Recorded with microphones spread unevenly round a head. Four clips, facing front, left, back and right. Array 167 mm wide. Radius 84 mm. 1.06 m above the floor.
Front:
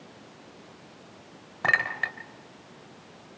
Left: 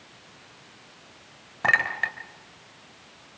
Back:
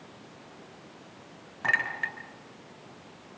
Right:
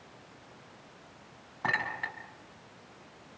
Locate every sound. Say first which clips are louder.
1.6 s a clink: left 8 dB, front 3 dB; 55° left, 3 m